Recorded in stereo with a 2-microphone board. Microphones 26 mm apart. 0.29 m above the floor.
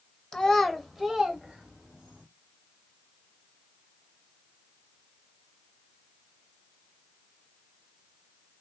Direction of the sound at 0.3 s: 25° left (ahead or behind).